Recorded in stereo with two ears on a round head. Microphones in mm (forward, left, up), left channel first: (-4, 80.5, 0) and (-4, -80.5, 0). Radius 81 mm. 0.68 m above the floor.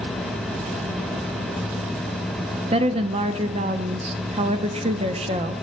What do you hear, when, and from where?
2.7 s a woman speaking: 35° right (ahead or behind), 0.6 m